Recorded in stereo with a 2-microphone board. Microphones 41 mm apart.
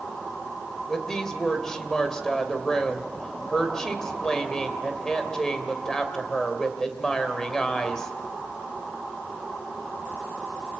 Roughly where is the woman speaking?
Centre.